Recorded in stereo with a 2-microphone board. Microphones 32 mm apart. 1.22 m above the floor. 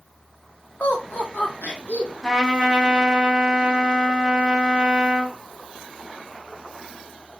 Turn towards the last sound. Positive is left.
turn(degrees=0)  # may be behind; listen again after turning